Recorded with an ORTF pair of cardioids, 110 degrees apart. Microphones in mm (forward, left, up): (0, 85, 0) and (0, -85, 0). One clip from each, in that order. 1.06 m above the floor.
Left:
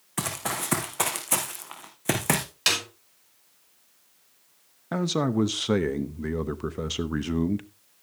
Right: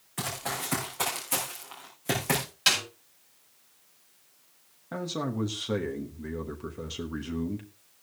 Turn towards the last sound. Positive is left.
turn(degrees=40)